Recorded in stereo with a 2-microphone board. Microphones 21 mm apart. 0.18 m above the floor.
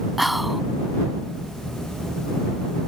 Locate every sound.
0.2 s whispering: 5° right (ahead or behind)